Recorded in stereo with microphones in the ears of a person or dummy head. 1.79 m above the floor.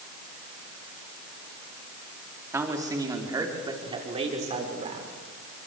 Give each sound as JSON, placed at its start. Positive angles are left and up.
{"t": 2.5, "sound": "a man speaking", "side_deg": -10, "distance_m": 4.0}